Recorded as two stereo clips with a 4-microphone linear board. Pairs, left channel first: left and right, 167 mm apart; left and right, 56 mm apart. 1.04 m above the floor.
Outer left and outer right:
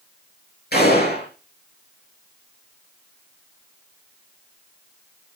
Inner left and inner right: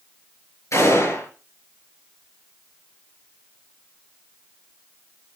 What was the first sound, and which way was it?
A gunshot, 70° left (ahead or behind).